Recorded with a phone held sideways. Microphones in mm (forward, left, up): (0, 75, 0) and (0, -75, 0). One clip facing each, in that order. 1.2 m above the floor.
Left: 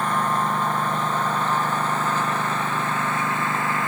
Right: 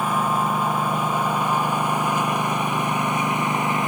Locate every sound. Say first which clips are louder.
0.0 s a lawn mower: right 1 dB; 10° right (ahead or behind); by 3.9 s 20° right (ahead or behind)